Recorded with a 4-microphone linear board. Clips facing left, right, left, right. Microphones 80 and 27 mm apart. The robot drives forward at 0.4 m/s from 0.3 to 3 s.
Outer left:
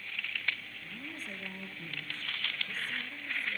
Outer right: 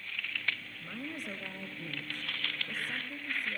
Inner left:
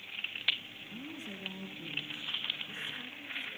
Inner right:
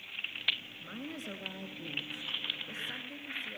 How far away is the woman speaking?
About 2.5 m.